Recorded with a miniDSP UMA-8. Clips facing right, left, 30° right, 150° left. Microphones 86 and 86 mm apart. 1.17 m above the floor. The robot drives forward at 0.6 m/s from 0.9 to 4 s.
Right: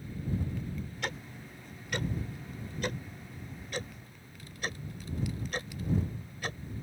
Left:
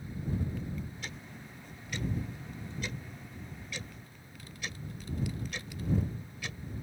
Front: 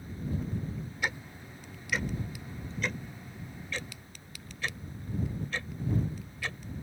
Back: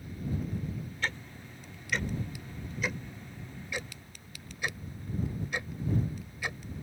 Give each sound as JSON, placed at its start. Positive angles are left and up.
{"t": 1.0, "sound": "ticking", "azimuth_deg": -105}